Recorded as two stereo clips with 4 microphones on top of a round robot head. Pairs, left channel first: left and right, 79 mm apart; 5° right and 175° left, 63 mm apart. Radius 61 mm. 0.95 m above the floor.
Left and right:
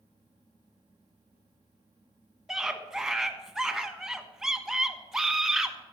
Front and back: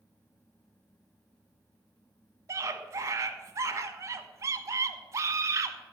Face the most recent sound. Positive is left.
turn(degrees=-175)